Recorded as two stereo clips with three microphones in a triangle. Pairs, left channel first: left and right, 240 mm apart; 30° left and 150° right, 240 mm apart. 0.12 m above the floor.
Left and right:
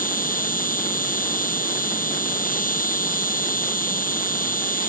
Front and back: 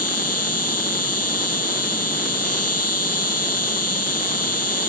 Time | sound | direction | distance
0.0 | an insect | 35° left | ?